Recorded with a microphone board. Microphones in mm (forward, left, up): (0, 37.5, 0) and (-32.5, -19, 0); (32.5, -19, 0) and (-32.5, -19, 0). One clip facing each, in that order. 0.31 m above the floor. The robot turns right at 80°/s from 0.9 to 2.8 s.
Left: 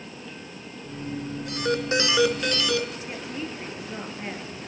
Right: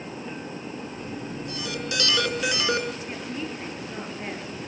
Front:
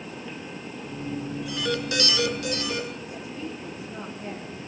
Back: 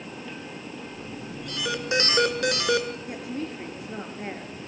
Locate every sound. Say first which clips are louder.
1.5 s an alarm: left 9 dB, back 1 dB; 80° left, 3 m; by 3.0 s 175° right, 3 m
3.0 s a woman speaking: right 1 dB, back 2 dB; 150° left, 4.5 m